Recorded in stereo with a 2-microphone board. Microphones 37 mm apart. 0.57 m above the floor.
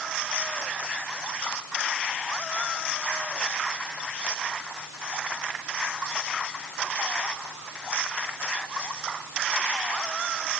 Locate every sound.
Only background noise.